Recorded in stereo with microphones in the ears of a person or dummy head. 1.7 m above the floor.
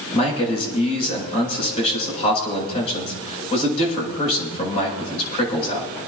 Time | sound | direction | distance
0.1 | a man speaking | 40° left (ahead or behind) | 8 m